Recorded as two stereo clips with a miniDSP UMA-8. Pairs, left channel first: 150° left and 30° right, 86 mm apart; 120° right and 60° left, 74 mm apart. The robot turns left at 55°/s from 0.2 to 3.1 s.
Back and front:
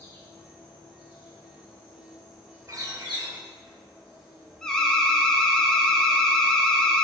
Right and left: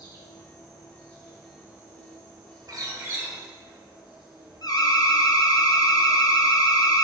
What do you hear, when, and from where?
0.0 s an insect: 145° right, 1.3 m; by 7.0 s 55° left, 1.3 m
2.7 s a bird: 25° left, 0.8 m; by 3.4 s 5° left, 0.8 m
4.6 s an alarm: 130° right, 0.5 m